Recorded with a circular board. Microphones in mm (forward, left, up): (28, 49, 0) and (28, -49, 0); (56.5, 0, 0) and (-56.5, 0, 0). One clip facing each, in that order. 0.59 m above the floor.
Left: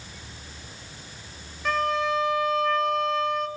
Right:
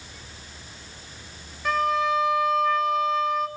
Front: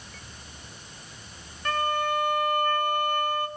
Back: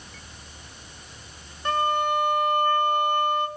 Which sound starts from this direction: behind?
A violin, at 1.6 s.